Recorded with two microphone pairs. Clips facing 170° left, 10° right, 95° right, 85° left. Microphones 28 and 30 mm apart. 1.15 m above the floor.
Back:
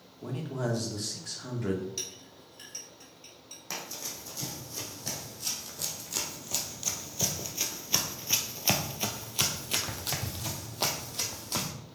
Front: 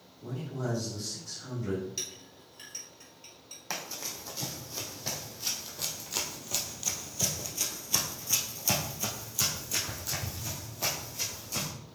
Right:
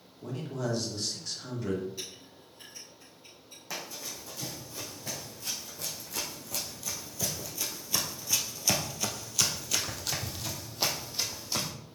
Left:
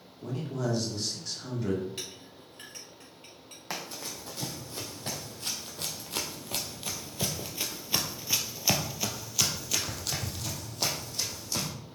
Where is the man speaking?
175° left, 2 m.